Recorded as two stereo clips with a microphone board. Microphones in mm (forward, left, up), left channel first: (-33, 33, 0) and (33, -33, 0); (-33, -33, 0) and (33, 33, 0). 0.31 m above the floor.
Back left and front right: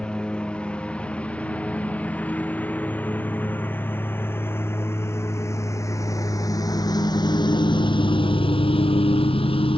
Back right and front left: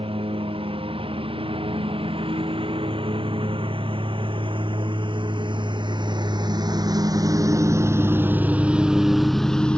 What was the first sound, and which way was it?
A lawn mower, 55° left.